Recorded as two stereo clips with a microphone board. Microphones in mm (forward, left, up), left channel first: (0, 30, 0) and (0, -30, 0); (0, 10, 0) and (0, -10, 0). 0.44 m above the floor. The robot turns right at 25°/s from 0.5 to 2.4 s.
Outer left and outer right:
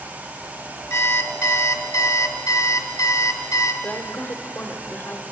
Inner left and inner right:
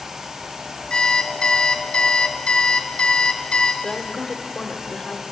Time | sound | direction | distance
0.9 | an alarm clock | 60° left | 1.2 m
3.8 | a woman speaking | 35° left (ahead or behind) | 0.9 m